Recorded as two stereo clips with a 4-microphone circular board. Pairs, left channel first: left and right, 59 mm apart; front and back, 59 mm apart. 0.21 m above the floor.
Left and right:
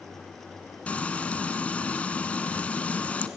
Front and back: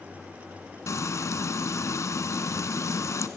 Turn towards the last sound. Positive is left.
turn(degrees=25)